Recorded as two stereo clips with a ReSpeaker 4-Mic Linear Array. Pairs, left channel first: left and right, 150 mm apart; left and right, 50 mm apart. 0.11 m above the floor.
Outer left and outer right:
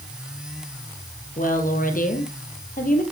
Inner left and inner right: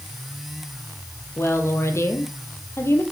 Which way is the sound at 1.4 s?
65° left (ahead or behind).